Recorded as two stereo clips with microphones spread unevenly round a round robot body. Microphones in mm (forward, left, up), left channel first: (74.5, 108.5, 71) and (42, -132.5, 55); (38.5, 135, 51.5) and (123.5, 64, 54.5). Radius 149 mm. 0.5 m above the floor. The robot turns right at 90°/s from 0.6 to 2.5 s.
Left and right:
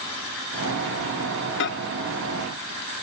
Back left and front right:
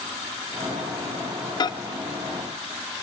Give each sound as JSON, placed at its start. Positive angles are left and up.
{"t": 1.6, "sound": "a microwave", "azimuth_deg": 100, "distance_m": 0.6}